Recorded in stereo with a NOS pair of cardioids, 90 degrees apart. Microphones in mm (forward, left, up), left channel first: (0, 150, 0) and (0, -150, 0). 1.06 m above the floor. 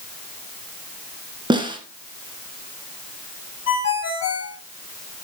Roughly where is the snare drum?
Ahead.